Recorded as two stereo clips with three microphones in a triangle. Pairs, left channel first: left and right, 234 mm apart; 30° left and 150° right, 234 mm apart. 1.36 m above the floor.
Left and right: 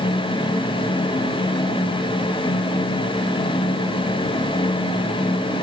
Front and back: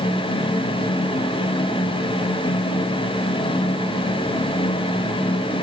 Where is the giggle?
I don't hear a giggle.